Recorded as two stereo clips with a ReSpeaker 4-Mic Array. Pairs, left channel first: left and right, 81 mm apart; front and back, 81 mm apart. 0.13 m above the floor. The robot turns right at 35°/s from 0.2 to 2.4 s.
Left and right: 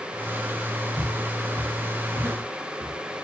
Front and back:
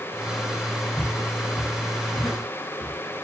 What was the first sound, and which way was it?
Footsteps, 95° right.